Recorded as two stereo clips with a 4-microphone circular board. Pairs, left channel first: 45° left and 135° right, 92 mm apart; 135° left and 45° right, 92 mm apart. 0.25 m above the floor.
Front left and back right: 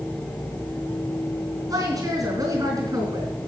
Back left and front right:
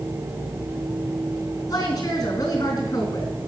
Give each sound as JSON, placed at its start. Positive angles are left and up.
{"t": 1.7, "sound": "a woman speaking", "azimuth_deg": 180, "distance_m": 3.0}